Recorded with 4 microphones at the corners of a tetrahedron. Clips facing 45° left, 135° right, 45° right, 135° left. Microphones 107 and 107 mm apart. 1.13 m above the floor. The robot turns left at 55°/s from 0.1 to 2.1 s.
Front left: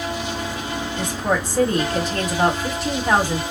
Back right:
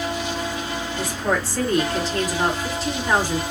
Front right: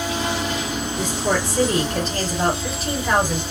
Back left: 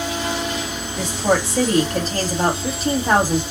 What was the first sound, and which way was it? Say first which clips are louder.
A woman speaking: front left 1 dB, back left 4 dB; 145° left.